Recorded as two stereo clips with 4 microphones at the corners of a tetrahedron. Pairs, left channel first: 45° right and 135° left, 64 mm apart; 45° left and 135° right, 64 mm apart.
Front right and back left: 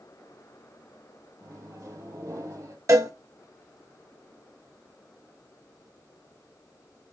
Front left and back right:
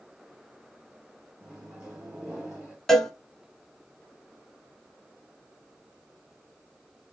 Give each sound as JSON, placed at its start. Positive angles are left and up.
{"t": 1.4, "sound": "a microwave", "azimuth_deg": 145, "distance_m": 2.5}
{"t": 2.9, "sound": "a cowbell", "azimuth_deg": 125, "distance_m": 1.0}